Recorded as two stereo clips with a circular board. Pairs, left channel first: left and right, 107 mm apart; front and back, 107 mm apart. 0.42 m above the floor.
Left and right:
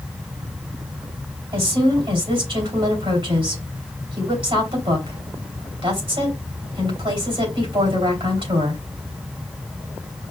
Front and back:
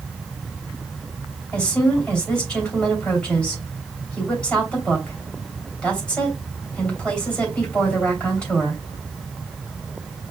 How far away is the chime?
I don't hear a chime.